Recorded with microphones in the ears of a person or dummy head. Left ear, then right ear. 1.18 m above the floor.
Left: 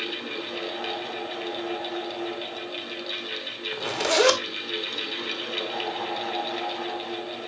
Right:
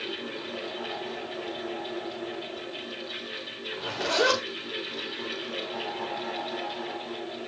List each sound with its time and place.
0.0 s a fan: 50° left (ahead or behind), 2.5 m
3.7 s a zipper: 70° left (ahead or behind), 1.5 m